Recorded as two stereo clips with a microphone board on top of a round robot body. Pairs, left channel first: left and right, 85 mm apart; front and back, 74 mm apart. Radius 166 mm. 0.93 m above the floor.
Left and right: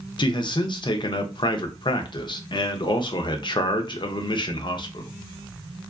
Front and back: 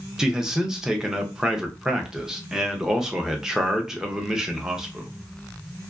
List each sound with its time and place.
0.2 s a man speaking: 100° left, 0.6 m